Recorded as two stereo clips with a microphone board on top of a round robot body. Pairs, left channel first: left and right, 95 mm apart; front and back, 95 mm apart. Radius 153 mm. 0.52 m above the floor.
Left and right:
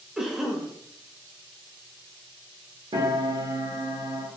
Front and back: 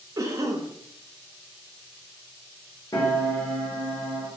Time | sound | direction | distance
0.2 | a cough | 170° right | 0.7 m
2.9 | a piano | 55° right | 0.9 m